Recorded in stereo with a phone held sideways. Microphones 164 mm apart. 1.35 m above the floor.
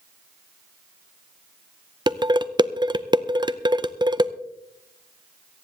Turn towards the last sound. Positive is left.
turn(degrees=-25)  # may be behind; listen again after turning